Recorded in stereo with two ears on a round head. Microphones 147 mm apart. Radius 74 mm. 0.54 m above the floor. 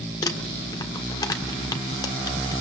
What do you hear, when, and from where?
0.2 s crumpling: 25° left (ahead or behind), 1.7 m